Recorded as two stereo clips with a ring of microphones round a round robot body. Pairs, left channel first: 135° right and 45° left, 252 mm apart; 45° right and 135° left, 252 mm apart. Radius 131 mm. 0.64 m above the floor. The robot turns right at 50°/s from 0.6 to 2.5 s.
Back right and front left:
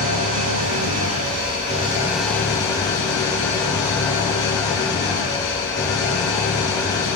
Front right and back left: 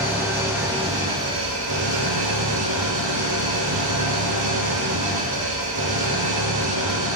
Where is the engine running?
55° left, 5 m; by 7.2 s 150° left, 5 m.